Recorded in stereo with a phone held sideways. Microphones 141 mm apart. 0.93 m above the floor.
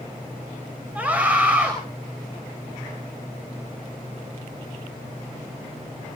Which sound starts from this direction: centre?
A scream, at 0.9 s.